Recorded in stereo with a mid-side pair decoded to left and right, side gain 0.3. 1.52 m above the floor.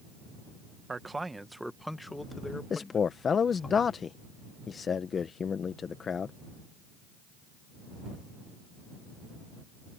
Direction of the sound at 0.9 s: 40° right.